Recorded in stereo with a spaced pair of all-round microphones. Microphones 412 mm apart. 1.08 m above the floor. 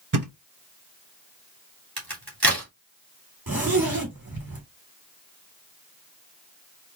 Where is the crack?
60° right (ahead or behind), 3 m.